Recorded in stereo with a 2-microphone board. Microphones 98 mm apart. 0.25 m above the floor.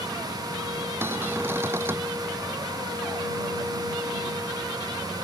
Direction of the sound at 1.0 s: 25° right (ahead or behind).